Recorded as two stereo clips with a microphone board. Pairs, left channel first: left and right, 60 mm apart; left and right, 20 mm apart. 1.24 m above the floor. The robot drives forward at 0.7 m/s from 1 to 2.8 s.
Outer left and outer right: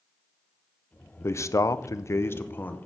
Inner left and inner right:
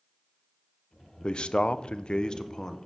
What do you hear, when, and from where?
1.2 s a man speaking: 45° left (ahead or behind), 0.6 m; by 2.8 s 30° left (ahead or behind), 0.9 m